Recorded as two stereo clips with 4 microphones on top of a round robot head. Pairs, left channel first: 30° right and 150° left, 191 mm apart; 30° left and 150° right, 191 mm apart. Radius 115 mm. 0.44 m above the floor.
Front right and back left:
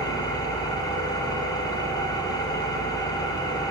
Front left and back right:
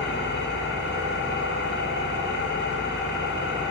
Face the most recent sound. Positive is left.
turn(degrees=35)